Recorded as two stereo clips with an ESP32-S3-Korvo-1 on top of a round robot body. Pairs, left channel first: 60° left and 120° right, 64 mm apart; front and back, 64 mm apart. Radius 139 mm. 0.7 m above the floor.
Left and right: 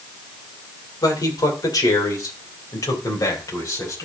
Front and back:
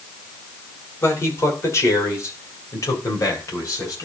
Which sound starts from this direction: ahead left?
A man speaking, at 1.0 s.